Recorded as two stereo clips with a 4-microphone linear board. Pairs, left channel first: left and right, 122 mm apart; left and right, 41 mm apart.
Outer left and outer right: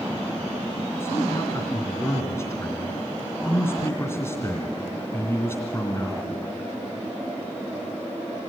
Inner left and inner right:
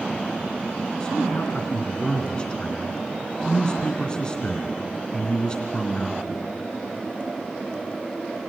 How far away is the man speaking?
About 2.5 m.